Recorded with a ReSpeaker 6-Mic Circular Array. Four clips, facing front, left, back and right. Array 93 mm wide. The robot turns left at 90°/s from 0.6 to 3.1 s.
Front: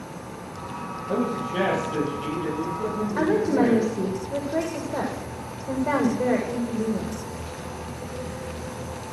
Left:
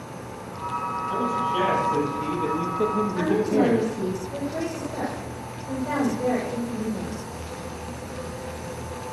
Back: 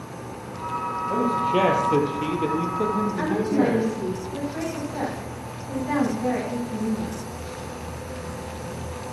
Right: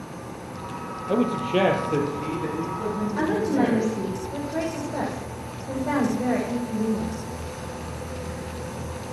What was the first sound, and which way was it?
A man speaking, 80° right.